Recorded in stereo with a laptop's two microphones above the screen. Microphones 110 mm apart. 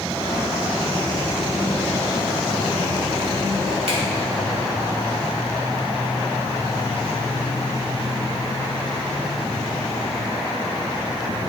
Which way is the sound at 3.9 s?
65° right (ahead or behind).